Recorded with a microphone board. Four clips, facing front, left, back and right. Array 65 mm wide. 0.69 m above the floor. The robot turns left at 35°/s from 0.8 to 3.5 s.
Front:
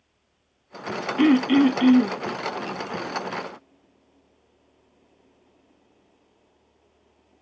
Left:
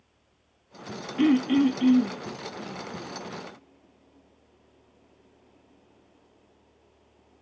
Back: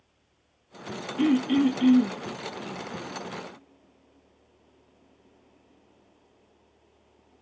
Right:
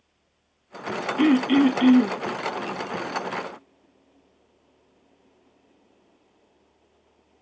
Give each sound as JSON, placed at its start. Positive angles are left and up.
{"t": 1.2, "sound": "throat clearing", "azimuth_deg": -25, "distance_m": 0.7}